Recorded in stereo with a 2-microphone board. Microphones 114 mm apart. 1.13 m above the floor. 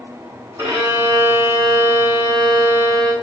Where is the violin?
25° right (ahead or behind), 1.3 m.